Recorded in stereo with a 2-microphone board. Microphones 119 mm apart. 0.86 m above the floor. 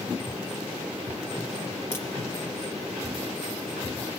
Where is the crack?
20° left (ahead or behind), 4 m.